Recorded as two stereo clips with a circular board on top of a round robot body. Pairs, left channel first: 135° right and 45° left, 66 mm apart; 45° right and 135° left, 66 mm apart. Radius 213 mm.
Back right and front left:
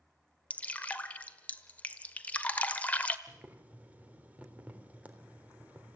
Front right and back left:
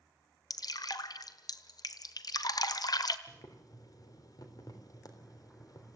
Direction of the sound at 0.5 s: 65° right.